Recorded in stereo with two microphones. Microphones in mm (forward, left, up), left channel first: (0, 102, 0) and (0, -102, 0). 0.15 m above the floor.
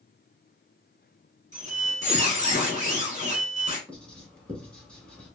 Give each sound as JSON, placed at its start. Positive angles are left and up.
{"t": 1.5, "sound": "a squeak", "side_deg": -35, "distance_m": 1.3}
{"t": 3.9, "sound": "writing", "side_deg": 5, "distance_m": 1.1}